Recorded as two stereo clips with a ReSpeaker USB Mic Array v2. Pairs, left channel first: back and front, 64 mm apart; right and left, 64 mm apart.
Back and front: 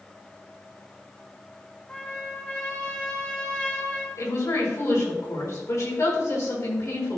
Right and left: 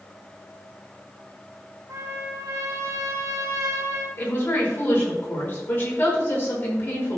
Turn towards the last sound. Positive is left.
turn(degrees=-150)